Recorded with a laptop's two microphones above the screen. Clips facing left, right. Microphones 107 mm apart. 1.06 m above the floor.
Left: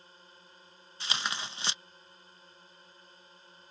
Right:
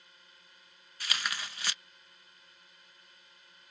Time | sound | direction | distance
0.0 | a drone | 30° left (ahead or behind) | ?
1.0 | tearing paper | 25° left (ahead or behind) | ?